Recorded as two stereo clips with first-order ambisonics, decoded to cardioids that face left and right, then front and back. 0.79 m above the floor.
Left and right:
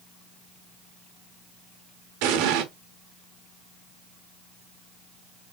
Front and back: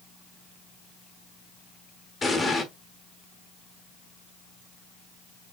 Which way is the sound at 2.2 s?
80° right.